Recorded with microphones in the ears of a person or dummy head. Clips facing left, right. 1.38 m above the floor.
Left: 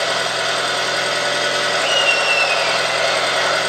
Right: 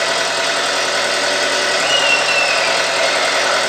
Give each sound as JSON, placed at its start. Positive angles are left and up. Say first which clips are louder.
{"t": 0.0, "sound": "a machine running", "louder": "right 2 dB", "side_deg": -65, "distance_m": 1.9}
{"t": 1.7, "sound": "laughter", "louder": "right 1 dB", "side_deg": -20, "distance_m": 0.7}